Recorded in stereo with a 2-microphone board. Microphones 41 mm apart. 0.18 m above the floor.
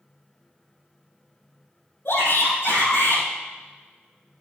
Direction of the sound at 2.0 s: 70° left (ahead or behind).